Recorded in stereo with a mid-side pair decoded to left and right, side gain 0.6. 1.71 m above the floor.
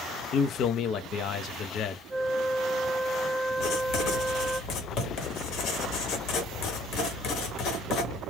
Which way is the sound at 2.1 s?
5° right.